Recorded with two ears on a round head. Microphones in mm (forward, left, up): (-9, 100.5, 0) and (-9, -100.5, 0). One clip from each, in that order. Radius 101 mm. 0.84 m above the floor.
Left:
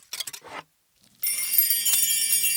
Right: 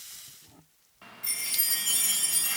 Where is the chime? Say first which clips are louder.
Left 2 dB; 45° left (ahead or behind), 0.6 m.